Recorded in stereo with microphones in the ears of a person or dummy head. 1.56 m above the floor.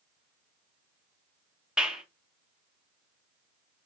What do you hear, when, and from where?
1.8 s a clap: 5° right (ahead or behind), 0.8 m